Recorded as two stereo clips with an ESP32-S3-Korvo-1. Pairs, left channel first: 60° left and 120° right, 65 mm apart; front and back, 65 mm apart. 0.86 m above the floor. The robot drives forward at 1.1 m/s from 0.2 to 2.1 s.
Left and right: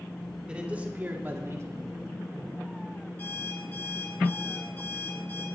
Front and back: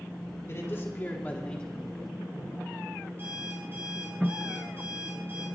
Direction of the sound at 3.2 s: 120° left.